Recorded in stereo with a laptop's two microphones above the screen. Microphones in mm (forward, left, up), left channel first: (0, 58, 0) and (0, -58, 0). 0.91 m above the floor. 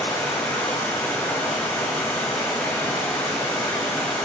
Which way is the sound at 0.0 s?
10° left (ahead or behind).